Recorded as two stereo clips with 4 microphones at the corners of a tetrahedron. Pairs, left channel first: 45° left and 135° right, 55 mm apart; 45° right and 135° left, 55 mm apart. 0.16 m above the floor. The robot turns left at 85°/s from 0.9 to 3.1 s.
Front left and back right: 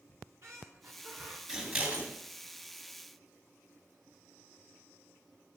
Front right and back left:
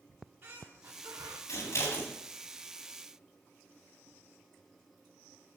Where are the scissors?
50° right, 2.5 m; by 2.1 s 105° right, 2.5 m.